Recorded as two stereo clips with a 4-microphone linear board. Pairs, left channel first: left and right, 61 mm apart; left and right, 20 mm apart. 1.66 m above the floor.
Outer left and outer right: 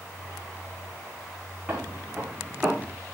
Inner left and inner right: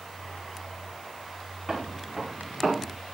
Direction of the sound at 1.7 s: 30° right (ahead or behind).